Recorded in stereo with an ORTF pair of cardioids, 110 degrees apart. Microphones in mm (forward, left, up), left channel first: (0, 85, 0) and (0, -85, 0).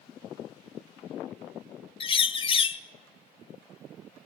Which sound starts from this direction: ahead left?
A bird, at 2.0 s.